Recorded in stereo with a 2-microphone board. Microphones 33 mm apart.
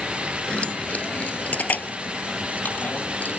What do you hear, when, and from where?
0.5 s keys jangling: 35° left (ahead or behind); by 3.4 s 70° left (ahead or behind)